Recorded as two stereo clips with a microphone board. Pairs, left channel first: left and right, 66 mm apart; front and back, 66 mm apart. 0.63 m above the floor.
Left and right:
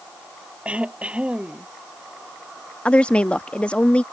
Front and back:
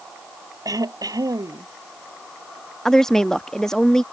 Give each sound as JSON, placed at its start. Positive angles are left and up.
{"t": 0.7, "sound": "throat clearing", "azimuth_deg": -160}
{"t": 2.9, "sound": "a woman speaking", "azimuth_deg": 65}